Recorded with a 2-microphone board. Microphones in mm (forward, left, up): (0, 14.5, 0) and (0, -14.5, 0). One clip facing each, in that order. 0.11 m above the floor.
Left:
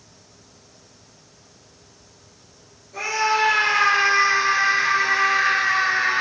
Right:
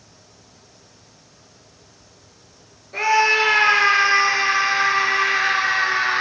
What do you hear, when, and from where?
2.9 s a scream: 45° right (ahead or behind), 2.5 m; by 6.2 s 55° right (ahead or behind), 4 m